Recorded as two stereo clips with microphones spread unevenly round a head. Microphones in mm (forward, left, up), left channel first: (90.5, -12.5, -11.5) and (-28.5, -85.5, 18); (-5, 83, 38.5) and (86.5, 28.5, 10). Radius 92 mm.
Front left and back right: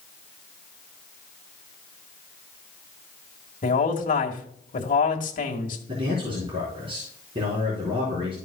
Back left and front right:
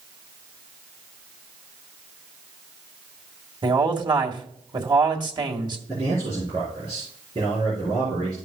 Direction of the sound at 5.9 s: 95° right.